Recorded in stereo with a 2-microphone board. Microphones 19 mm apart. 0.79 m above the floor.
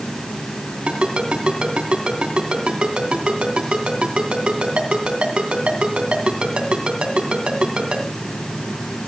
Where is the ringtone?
80° right, 2.5 m.